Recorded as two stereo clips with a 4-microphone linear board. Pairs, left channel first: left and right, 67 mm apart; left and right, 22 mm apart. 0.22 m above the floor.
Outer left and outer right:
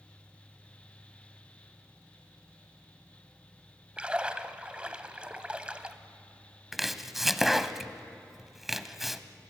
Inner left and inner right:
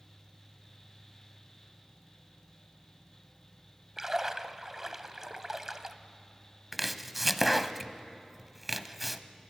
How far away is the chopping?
About 0.7 m.